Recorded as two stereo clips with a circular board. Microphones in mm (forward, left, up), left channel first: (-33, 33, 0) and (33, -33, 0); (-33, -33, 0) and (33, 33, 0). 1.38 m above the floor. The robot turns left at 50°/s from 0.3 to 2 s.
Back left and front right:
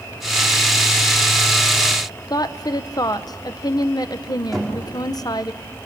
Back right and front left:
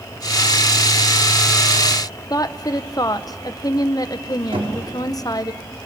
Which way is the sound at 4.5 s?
50° left.